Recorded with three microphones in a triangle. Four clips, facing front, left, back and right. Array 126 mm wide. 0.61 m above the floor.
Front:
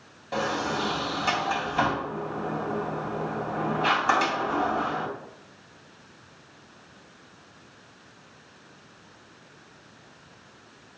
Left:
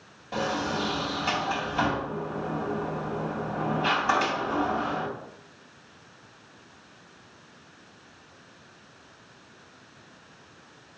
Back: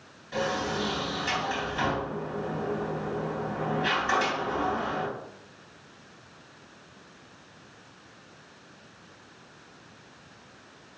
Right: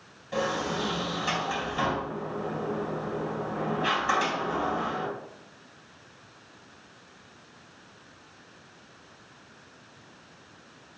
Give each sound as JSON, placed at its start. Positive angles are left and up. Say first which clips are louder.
{"t": 0.3, "sound": "a sliding door", "louder": "even, front 2 dB", "azimuth_deg": 30, "distance_m": 3.0}